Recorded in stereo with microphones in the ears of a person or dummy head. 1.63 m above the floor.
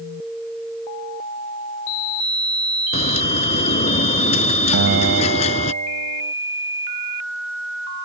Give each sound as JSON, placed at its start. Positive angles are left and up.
{"t": 2.9, "sound": "a bird", "side_deg": 40}
{"t": 4.7, "sound": "a guitar", "side_deg": -70}